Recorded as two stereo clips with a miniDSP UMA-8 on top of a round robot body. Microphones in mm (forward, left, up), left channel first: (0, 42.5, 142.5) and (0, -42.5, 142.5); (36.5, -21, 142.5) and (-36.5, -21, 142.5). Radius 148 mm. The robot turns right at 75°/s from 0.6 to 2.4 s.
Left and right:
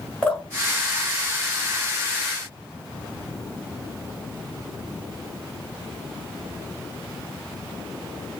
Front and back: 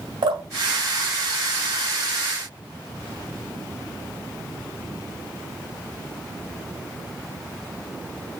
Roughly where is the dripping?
Behind.